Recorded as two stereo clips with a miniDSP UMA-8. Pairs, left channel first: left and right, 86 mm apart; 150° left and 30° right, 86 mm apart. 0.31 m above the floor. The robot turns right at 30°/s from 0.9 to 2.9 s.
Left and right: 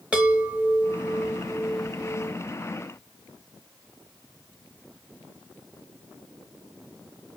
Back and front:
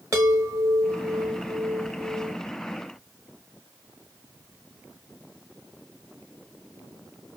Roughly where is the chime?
Ahead right.